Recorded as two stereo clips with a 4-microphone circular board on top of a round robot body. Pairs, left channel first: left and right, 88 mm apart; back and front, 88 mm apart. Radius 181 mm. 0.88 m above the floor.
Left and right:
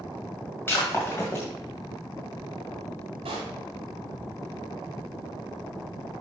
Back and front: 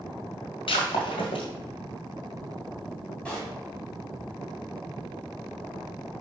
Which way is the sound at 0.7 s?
155° left.